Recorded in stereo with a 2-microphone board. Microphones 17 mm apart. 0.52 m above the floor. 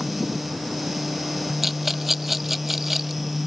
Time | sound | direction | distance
1.6 | a rattle | 5° right (ahead or behind) | ?